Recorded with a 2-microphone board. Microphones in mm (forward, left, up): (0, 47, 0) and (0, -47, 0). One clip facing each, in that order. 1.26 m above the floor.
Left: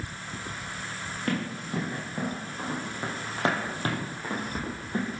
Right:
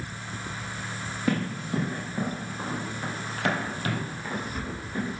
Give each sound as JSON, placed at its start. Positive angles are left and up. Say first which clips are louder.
{"t": 1.3, "sound": "running footsteps", "louder": "right 3 dB", "side_deg": -5, "distance_m": 2.5}